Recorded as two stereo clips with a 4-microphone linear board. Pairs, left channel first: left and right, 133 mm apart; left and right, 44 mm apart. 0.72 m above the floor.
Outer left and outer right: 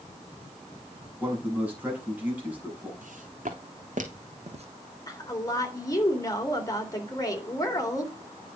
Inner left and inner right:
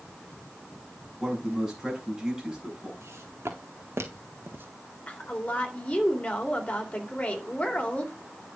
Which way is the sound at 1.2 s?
10° right (ahead or behind).